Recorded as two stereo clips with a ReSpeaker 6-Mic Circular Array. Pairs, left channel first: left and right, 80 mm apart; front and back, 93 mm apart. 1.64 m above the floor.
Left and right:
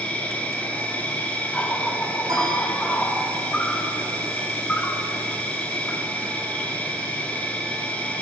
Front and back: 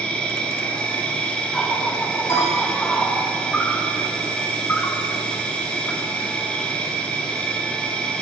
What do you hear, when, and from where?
0.0 s an insect: 55° left, 1.2 m
2.3 s a piano: 55° right, 3 m